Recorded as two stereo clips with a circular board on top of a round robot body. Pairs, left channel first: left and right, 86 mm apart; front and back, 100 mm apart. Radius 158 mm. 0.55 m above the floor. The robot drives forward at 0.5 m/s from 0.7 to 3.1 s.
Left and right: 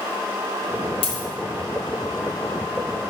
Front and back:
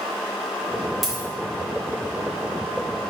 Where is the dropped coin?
90° left, 0.9 m; by 1.2 s 100° left, 0.9 m.